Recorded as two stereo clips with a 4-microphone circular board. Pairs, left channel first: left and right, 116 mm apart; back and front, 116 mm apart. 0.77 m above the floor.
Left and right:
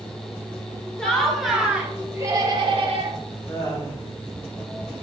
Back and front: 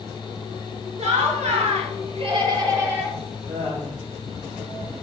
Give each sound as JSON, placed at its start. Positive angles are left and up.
{"t": 1.0, "sound": "laughter", "azimuth_deg": 5, "distance_m": 2.0}
{"t": 3.5, "sound": "laughter", "azimuth_deg": 30, "distance_m": 2.0}